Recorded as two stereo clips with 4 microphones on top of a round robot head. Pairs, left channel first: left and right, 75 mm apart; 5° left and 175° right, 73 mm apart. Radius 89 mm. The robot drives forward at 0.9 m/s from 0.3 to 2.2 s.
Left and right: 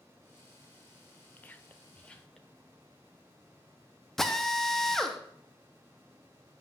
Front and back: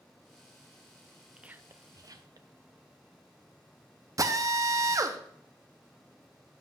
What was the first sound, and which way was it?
Whispering, 115° left.